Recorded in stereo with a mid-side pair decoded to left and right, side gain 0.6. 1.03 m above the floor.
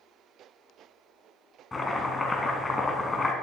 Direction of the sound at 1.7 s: 20° left.